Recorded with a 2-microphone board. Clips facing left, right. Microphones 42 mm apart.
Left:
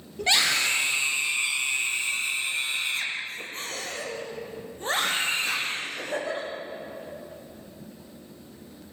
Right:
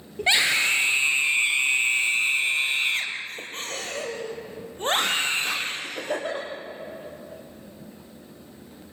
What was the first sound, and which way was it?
A scream, 20° right (ahead or behind).